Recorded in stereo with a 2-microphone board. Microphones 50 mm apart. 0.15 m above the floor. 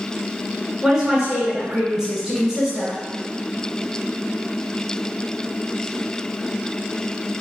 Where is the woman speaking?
5° right (ahead or behind), 1.3 m.